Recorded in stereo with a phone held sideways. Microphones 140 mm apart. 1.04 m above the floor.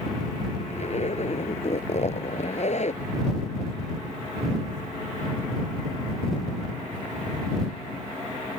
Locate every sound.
0.7 s a zipper: 55° left (ahead or behind)